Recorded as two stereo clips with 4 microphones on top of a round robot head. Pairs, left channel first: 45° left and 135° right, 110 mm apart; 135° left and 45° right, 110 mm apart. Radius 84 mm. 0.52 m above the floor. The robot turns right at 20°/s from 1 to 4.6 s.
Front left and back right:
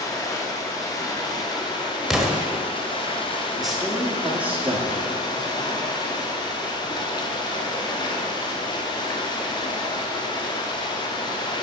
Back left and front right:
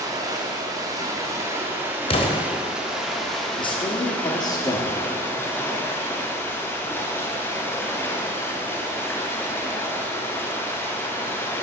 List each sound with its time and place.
0.0 s running water: straight ahead, 1.3 m; by 11.6 s 70° left, 1.3 m
2.1 s an explosion: 135° left, 1.3 m; by 2.4 s 145° left, 1.3 m
3.6 s a man speaking: 135° left, 1.1 m; by 5.1 s 155° left, 1.1 m